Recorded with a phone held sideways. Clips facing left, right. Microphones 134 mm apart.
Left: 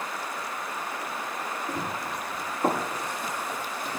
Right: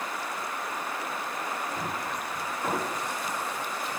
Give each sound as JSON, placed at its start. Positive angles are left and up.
{"t": 1.7, "sound": "running footsteps", "side_deg": 45, "distance_m": 7.5}